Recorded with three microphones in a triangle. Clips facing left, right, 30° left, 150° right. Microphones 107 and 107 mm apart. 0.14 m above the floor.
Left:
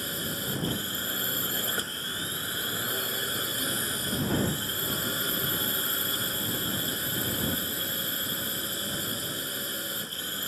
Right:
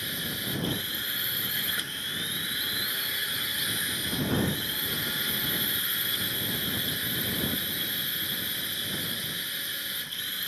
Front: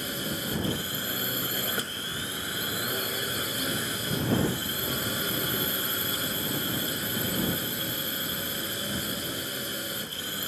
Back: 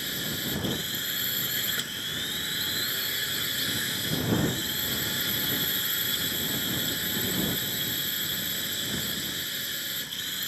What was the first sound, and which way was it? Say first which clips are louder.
A drone: left 2 dB, front 2 dB; 50° left.